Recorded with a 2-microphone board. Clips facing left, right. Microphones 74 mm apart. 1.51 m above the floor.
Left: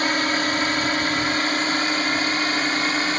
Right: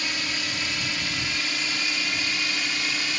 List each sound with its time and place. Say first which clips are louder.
0.0 s a drone: left 10 dB; 55° left (ahead or behind); by 3.2 s 50° left (ahead or behind)